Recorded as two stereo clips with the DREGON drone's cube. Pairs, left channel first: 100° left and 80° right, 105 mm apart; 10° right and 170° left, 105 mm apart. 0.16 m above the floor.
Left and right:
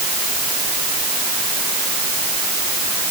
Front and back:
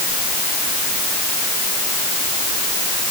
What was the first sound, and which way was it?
Only background noise.